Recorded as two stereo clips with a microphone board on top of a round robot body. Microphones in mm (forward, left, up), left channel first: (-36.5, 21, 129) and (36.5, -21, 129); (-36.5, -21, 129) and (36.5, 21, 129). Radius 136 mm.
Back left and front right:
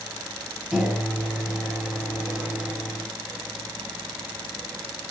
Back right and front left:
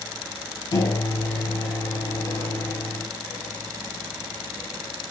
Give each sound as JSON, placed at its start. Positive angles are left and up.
{"t": 0.7, "sound": "a microwave", "azimuth_deg": -110, "distance_m": 1.3}